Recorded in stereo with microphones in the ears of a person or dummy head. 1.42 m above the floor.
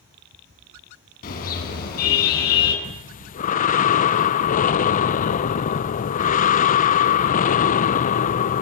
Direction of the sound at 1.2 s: 45° left (ahead or behind).